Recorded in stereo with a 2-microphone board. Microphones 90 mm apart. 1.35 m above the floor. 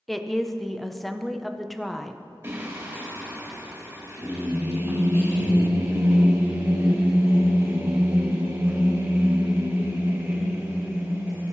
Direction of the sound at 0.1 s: Centre (ahead or behind).